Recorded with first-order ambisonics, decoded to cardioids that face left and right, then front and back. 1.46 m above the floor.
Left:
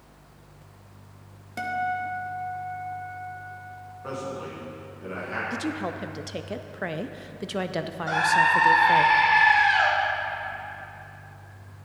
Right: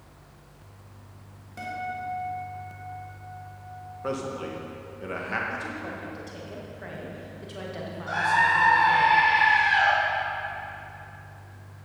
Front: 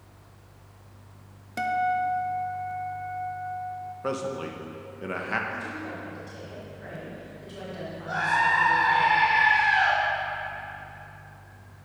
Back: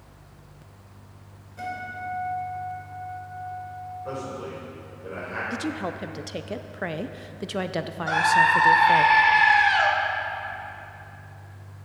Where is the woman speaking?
145° left, 0.5 m.